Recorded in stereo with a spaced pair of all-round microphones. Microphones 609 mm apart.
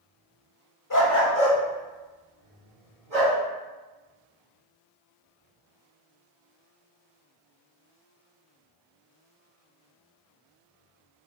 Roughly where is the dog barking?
Left.